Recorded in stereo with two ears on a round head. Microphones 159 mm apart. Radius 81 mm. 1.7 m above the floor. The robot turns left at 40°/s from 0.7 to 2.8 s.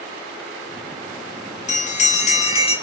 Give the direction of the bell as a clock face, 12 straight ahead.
9 o'clock.